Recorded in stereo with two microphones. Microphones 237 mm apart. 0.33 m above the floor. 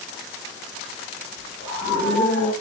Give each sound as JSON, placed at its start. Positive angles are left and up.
{"t": 1.6, "sound": "a scream", "side_deg": 80, "distance_m": 5.0}